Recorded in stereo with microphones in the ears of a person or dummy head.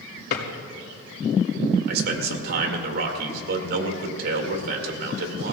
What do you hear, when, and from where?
0.3 s a drawer: 50° left (ahead or behind), 2.5 m
1.9 s a man speaking: 60° right (ahead or behind), 2 m